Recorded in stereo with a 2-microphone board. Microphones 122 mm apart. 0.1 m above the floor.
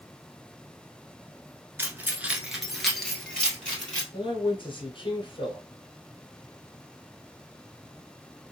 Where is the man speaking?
45° left (ahead or behind), 1.5 m.